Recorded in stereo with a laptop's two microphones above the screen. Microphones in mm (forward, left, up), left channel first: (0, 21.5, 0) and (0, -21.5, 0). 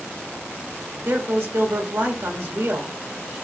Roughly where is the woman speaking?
Right.